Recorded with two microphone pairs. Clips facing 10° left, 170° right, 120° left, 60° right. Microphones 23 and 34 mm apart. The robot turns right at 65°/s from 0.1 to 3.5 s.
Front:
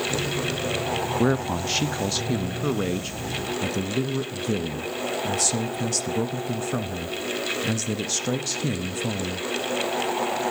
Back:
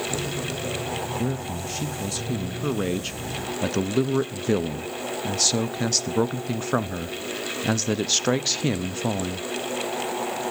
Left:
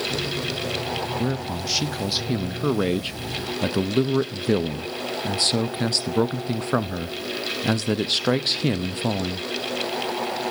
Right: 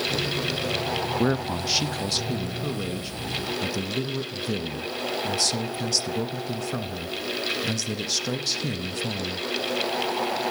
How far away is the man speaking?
About 0.5 m.